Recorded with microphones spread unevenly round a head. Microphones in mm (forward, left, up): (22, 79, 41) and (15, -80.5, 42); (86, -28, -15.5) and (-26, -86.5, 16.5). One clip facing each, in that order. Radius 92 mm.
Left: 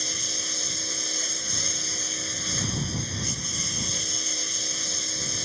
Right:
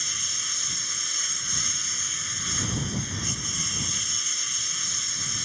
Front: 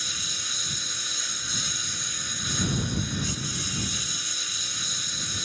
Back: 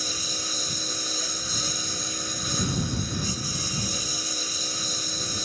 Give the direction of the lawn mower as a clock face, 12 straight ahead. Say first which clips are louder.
Left 8 dB, back 7 dB; 7 o'clock.